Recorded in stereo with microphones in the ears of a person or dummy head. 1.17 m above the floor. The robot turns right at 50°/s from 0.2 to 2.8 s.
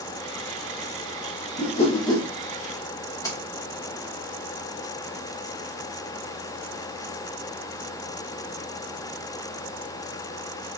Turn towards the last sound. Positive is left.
turn(degrees=20)  # may be behind; listen again after turning